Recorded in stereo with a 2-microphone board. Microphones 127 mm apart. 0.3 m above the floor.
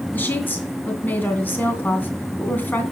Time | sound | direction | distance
0.1 | a woman speaking | 15° left (ahead or behind) | 2.5 m